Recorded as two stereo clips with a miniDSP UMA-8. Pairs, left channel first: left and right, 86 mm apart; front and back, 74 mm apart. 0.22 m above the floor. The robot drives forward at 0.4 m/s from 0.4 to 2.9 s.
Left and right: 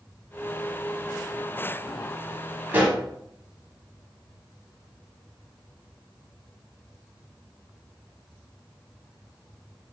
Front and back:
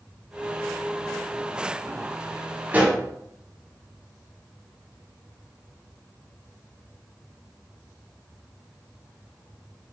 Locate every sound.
2.7 s a pop: 135° right, 1.3 m; by 3.0 s 140° right, 1.3 m